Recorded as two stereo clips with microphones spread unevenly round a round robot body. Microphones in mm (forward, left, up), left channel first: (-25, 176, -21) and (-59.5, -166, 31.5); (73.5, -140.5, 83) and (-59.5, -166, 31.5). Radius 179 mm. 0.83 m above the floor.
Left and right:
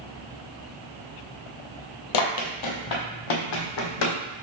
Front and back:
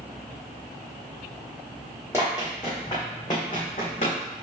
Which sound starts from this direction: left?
Running footsteps, at 2.1 s.